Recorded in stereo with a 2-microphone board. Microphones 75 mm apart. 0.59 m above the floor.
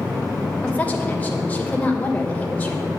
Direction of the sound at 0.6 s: 20° left (ahead or behind).